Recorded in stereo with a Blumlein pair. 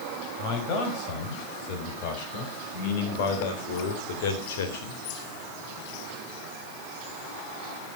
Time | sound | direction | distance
0.4 | a man speaking | 40° left | 6 m